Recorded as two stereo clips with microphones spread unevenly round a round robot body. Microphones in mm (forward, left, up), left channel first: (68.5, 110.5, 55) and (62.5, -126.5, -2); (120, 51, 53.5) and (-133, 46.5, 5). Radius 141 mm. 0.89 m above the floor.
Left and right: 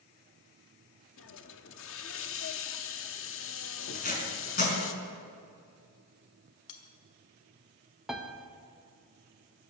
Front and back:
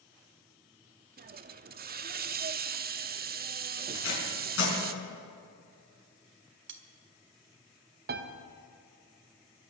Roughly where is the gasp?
No gasp in this recording.